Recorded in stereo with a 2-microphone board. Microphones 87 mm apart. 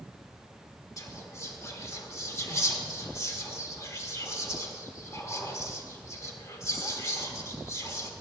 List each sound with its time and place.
1.0 s whispering: 35° left (ahead or behind), 1.4 m